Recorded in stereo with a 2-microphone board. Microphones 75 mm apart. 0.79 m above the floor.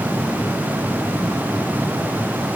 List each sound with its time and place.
Only background noise.